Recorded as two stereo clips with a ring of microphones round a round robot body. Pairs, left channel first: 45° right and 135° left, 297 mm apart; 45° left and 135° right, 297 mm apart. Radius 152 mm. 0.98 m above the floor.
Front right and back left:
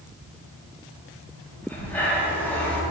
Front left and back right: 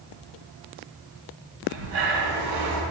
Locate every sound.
1.6 s breathing: 130° right, 1.3 m